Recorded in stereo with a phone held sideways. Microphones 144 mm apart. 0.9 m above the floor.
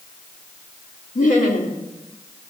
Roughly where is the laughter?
Left.